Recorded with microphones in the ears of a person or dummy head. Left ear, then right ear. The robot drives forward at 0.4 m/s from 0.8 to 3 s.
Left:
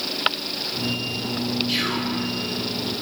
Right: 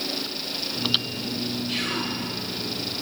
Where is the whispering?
25° left (ahead or behind), 1.4 m; by 2.1 s 30° left (ahead or behind), 1.3 m.